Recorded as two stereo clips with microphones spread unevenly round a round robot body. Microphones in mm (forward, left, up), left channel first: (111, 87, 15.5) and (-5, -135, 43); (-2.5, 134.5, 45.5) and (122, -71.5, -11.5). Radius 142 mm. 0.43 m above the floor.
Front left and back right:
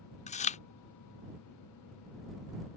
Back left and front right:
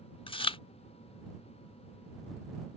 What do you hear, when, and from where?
0.3 s chewing: 45° left